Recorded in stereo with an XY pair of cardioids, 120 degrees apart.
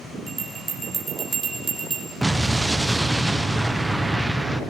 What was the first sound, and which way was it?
A bell, 30° right.